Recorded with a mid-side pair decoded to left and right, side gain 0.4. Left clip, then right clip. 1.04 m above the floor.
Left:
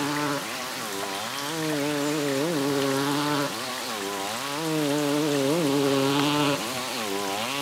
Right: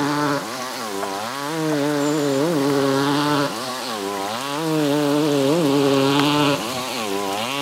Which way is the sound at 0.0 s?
50° right.